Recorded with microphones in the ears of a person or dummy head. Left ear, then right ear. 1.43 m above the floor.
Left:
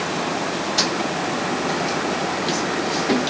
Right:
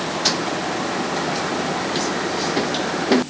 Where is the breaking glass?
No breaking glass in this recording.